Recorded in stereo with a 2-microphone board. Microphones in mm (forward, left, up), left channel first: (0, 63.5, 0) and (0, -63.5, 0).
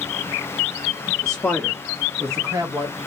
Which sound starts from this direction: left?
A man speaking, at 1.2 s.